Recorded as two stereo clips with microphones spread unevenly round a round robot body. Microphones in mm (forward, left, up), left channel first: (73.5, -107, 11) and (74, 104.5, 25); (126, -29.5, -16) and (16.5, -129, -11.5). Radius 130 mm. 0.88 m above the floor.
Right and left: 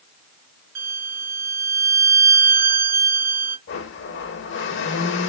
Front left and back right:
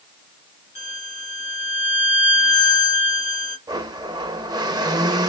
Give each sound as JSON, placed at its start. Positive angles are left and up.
{"t": 0.8, "sound": "a violin", "azimuth_deg": 110, "distance_m": 2.5}
{"t": 3.7, "sound": "a blender", "azimuth_deg": -80, "distance_m": 0.8}